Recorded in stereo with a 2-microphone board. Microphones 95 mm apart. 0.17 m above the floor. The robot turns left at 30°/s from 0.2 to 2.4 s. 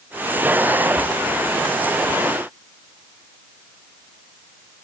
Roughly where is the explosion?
I don't hear an explosion.